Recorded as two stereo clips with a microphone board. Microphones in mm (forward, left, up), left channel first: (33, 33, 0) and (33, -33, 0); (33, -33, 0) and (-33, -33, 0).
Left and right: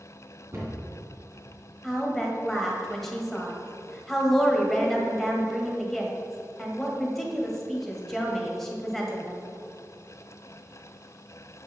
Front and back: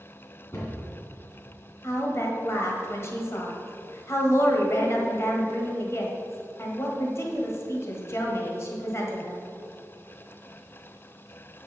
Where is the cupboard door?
50° right, 3 m.